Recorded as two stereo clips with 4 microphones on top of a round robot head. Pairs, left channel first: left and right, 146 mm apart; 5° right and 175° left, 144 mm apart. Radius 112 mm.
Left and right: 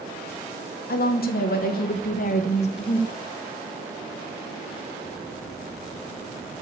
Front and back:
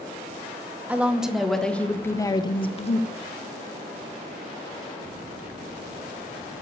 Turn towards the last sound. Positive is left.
turn(degrees=25)